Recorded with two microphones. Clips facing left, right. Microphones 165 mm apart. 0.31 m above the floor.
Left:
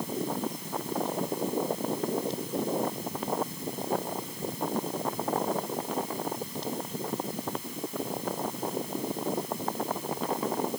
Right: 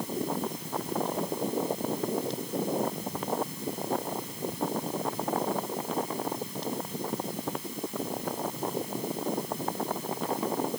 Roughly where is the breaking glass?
No breaking glass in this recording.